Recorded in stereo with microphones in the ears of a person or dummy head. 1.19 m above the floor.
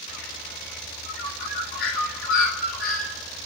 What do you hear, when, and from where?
0.1 s a bird: 50° left (ahead or behind), 3 m